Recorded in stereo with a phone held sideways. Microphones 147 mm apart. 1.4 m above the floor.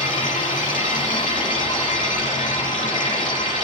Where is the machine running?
65° left (ahead or behind), 10 m.